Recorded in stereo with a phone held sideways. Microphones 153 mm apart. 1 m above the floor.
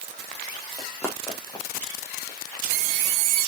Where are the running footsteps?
5° left (ahead or behind), 3 m; by 2.4 s 35° left (ahead or behind), 4 m.